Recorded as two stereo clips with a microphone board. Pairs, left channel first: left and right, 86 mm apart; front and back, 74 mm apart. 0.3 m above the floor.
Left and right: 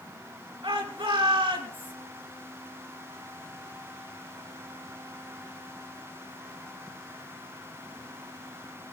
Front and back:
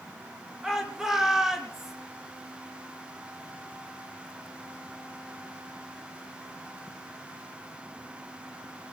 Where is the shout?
95° right, 4 m.